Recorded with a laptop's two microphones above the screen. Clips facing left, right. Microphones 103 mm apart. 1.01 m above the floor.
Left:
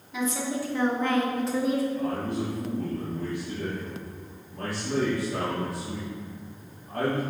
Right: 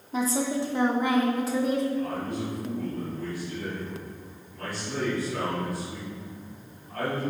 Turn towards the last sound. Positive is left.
turn(degrees=70)  # may be behind; listen again after turning